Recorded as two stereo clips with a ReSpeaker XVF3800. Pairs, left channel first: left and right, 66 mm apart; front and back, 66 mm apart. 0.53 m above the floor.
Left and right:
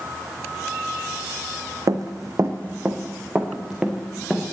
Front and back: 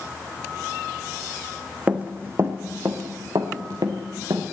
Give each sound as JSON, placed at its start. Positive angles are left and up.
{"t": 1.9, "sound": "running footsteps", "azimuth_deg": -110, "distance_m": 1.5}